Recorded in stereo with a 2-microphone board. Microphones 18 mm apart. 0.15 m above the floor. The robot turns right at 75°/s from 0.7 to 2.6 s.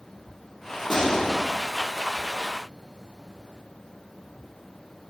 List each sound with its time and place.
0.9 s a gunshot: 10° left, 2 m; by 1.4 s 50° left, 2 m